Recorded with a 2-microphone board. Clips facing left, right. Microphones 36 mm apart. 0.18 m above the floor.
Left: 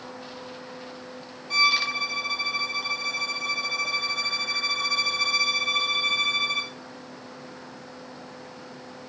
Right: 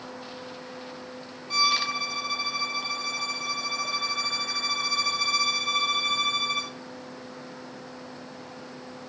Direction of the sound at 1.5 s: 5° right (ahead or behind).